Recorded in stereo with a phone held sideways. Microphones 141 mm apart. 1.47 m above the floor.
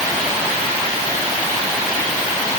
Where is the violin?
No violin in this recording.